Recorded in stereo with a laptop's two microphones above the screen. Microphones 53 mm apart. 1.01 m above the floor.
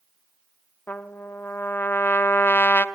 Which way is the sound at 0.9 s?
40° left (ahead or behind).